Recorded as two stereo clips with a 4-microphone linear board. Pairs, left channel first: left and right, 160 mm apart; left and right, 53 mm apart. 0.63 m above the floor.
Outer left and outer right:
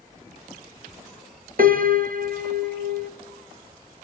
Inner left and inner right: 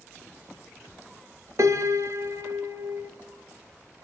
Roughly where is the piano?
Right.